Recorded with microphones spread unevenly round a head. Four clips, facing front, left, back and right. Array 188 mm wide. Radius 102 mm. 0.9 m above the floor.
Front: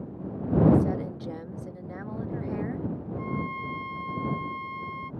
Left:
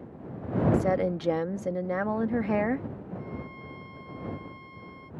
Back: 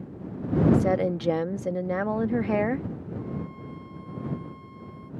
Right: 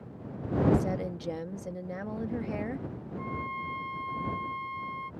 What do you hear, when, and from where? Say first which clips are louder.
0.7 s a woman speaking: left 5 dB, back 3 dB; 150° left
3.2 s a violin: right 4 dB, front 3 dB; 20° right